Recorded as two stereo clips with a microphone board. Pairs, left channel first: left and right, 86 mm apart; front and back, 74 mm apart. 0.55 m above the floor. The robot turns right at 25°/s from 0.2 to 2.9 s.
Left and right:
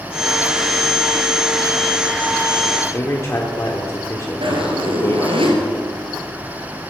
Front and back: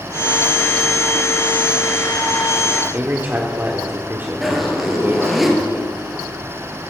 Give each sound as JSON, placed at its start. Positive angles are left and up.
{"t": 2.9, "sound": "a man speaking", "azimuth_deg": 130, "distance_m": 1.6}
{"t": 4.4, "sound": "a zipper", "azimuth_deg": -90, "distance_m": 3.5}